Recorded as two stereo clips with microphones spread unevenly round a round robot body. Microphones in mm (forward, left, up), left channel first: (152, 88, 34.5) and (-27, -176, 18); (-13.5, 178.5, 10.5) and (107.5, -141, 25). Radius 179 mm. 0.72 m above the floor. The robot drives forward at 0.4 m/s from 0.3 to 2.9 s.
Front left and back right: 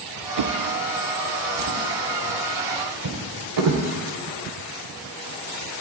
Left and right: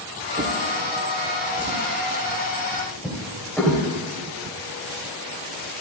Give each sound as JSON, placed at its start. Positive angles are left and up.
{"t": 0.4, "sound": "a drawer", "azimuth_deg": -135, "distance_m": 0.7}